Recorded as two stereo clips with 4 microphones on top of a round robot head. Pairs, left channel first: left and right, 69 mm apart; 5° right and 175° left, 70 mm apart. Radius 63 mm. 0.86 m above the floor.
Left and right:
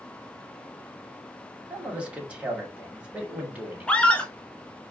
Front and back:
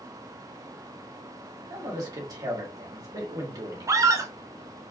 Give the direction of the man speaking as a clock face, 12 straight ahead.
5 o'clock.